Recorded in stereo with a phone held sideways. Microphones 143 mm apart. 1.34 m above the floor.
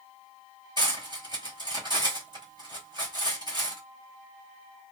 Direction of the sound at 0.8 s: 35° right (ahead or behind).